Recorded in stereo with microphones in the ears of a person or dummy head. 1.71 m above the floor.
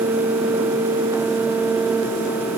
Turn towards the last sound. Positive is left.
No sound to turn to.